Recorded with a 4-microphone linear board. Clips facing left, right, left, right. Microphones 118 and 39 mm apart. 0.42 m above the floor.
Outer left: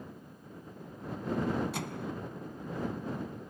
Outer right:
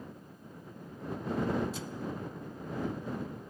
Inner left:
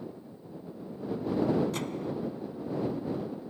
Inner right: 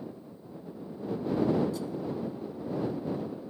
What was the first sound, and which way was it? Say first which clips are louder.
A microwave: outer left 1 dB, even; 65° left (ahead or behind).